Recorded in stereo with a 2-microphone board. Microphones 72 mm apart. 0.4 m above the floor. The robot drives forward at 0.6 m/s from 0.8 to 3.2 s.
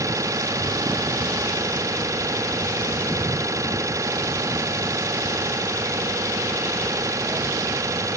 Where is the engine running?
50° right (ahead or behind); by 8.2 s 45° right (ahead or behind).